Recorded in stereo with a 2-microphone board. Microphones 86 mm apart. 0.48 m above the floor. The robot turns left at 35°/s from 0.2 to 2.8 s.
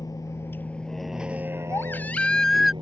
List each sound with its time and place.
0.0 s a vehicle: 50° left (ahead or behind); by 2.8 s 85° right
1.7 s a baby crying: 35° left; by 2.7 s straight ahead